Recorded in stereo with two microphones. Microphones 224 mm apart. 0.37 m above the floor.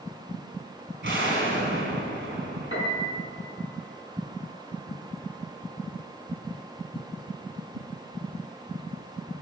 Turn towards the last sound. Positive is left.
turn(degrees=65)  # may be behind; listen again after turning